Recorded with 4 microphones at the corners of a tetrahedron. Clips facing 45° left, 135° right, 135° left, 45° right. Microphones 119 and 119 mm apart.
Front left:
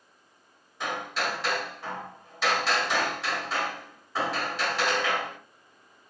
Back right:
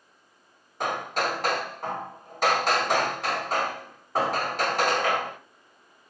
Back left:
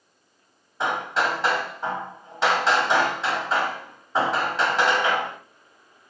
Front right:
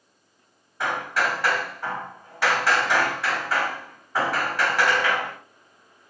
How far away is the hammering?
About 1.9 m.